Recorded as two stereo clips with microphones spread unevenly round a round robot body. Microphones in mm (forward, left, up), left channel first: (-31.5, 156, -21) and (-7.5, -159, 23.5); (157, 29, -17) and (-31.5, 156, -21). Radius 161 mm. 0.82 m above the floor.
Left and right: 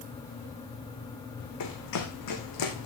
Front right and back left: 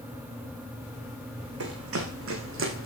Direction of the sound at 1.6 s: 135° left.